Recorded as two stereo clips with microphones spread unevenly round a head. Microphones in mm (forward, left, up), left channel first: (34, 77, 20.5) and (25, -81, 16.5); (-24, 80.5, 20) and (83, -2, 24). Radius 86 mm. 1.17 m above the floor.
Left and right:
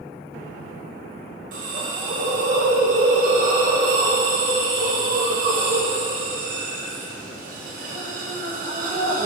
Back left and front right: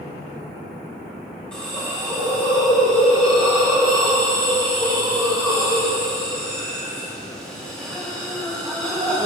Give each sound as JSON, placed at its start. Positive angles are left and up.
{"t": 1.5, "sound": "a hiss", "azimuth_deg": -135, "distance_m": 2.0}